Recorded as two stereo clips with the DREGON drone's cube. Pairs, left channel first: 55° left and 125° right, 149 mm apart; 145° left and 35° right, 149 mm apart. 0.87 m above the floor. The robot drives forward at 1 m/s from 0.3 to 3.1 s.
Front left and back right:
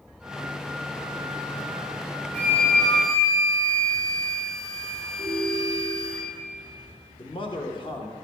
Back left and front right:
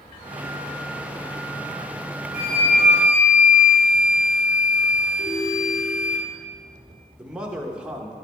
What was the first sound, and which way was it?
A flute, 130° left.